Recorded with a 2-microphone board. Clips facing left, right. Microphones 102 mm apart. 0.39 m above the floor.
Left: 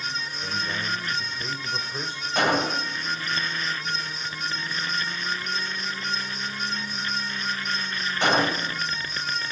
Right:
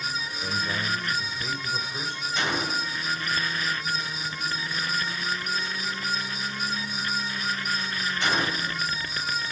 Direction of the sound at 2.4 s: 55° left (ahead or behind).